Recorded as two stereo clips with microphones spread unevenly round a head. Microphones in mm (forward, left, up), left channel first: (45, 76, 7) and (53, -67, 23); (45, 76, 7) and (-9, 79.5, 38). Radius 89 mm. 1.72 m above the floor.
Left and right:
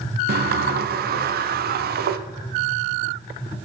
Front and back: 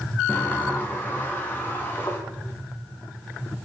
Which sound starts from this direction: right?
A sliding door, at 0.3 s.